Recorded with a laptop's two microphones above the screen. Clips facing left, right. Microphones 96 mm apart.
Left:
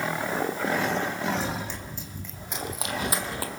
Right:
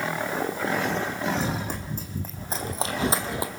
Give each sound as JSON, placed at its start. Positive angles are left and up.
{"t": 1.4, "sound": "running footsteps", "side_deg": -45, "distance_m": 3.0}